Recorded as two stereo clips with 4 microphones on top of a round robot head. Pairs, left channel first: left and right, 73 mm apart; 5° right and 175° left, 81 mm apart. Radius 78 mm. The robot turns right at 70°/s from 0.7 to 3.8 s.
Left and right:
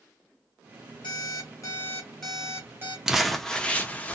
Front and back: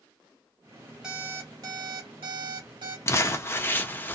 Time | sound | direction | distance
1.0 | an alarm clock | 90° left | 1.2 m
3.1 | crumpling | 10° right | 0.6 m